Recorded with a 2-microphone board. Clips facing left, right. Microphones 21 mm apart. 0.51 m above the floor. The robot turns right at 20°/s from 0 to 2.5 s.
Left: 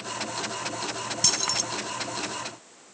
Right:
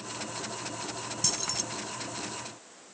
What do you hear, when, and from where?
1.2 s keys jangling: 40° left (ahead or behind); by 1.6 s 30° left (ahead or behind)